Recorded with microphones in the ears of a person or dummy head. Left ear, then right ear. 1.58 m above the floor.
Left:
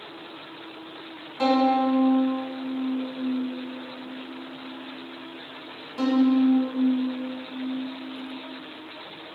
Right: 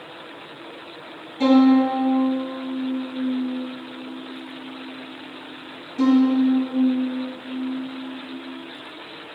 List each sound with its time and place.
1.4 s a violin: 40° left (ahead or behind), 2.0 m